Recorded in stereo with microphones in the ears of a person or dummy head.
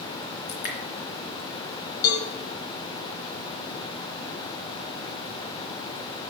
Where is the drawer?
I don't hear a drawer.